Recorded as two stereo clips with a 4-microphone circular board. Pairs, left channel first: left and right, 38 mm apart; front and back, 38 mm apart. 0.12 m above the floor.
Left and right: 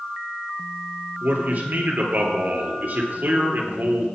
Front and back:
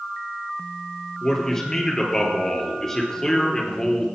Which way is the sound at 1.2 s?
70° right.